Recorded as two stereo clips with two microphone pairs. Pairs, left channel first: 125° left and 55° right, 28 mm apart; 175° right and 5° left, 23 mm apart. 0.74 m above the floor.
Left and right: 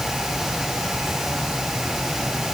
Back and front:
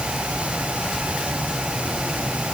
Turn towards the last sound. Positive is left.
No sound to turn to.